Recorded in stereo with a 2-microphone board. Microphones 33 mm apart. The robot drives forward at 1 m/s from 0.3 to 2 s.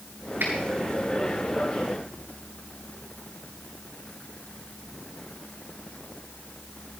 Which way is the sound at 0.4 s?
70° right (ahead or behind).